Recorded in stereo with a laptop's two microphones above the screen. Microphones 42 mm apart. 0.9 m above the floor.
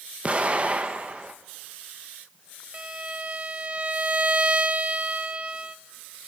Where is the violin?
30° right (ahead or behind), 0.6 m.